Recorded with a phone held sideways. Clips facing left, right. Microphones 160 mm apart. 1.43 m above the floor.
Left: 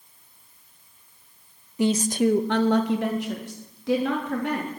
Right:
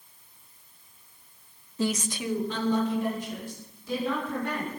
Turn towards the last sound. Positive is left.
turn(degrees=85)